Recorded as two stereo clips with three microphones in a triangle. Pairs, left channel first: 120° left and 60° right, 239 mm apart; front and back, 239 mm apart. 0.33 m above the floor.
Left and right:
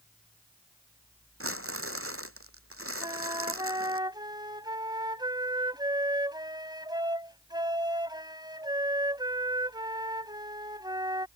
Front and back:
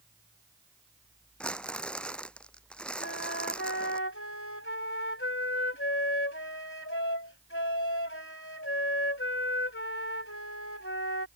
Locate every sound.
1.4 s crumpling: 85° right
3.0 s a flute: 10° left